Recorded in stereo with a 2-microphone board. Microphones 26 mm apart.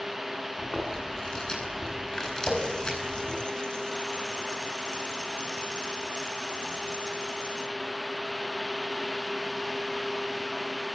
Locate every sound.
0.6 s chewing: 25° left (ahead or behind), 9.5 m
2.5 s a running tap: 35° left (ahead or behind), 3.5 m